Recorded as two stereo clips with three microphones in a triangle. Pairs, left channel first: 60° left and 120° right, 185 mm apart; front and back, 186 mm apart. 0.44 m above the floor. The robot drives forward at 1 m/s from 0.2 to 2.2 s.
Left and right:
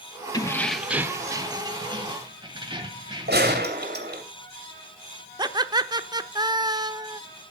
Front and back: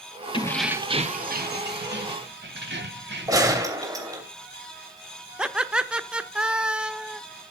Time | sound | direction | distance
0.3 | keys jangling | 15° left | 0.6 m
3.3 | a gunshot | 110° right | 2.5 m
5.4 | laughter | 105° right | 0.8 m